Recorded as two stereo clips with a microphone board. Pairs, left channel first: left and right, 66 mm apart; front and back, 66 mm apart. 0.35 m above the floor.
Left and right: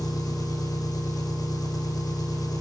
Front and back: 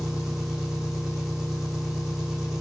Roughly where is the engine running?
Left.